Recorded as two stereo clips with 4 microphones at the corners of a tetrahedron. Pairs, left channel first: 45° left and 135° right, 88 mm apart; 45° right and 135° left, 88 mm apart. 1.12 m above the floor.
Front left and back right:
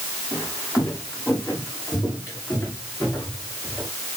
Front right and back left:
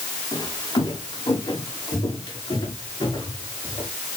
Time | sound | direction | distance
0.3 | footsteps | 20° right | 6 m